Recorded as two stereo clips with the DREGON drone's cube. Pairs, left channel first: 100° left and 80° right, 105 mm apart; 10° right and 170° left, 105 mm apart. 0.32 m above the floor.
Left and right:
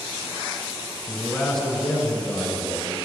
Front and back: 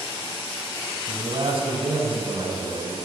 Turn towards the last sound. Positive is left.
turn(degrees=-165)